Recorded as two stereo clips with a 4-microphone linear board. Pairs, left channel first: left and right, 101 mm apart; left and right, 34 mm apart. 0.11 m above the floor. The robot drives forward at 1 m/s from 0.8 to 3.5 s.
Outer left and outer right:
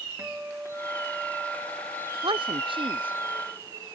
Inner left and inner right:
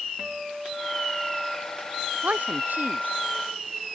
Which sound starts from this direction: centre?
A guitar, at 0.2 s.